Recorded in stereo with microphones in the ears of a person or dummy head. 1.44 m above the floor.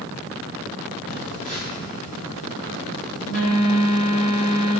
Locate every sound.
1.1 s a phone buzzing: 40° left (ahead or behind), 1.7 m